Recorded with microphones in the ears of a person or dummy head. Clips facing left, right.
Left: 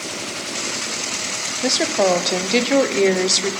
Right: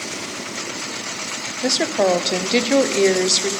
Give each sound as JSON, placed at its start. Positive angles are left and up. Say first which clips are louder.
{"t": 1.6, "sound": "a woman speaking", "louder": "even", "side_deg": 0, "distance_m": 0.9}